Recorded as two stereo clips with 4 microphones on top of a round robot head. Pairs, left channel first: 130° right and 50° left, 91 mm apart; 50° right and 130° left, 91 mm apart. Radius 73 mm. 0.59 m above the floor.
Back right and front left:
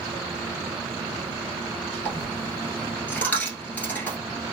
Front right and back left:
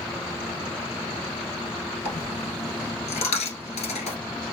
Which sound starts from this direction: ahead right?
A dropped coin, at 2.0 s.